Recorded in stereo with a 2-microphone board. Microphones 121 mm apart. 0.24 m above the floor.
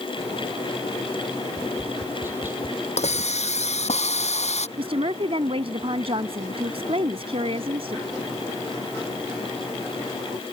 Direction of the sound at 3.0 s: 65° left (ahead or behind).